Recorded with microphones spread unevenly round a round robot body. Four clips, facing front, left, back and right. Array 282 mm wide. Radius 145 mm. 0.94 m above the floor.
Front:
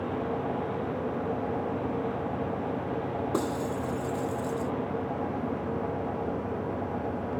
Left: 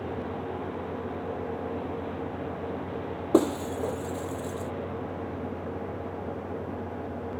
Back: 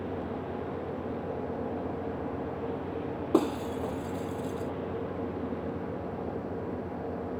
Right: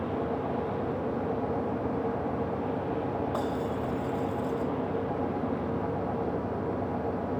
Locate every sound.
3.3 s breaking glass: 110° left